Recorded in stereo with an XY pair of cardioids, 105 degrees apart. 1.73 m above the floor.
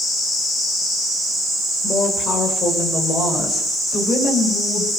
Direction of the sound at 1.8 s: 50° left.